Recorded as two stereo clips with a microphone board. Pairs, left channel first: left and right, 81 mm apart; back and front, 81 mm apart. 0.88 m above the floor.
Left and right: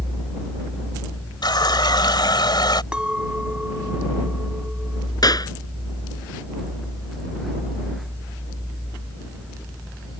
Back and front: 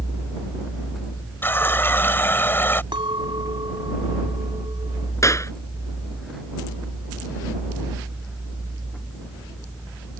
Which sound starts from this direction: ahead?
A clink, at 2.9 s.